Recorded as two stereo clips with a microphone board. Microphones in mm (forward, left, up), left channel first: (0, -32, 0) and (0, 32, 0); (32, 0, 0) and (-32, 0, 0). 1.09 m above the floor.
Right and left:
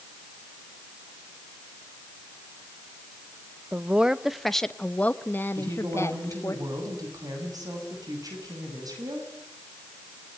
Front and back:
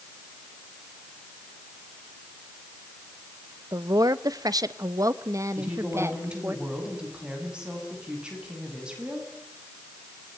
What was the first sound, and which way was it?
A woman speaking, 160° left.